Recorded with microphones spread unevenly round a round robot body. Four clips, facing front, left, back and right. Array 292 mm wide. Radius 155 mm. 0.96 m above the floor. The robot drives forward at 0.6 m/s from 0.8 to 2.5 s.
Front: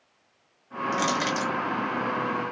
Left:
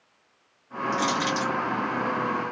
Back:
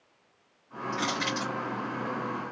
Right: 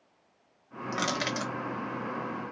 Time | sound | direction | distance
0.9 | crushing | 45° right | 0.9 m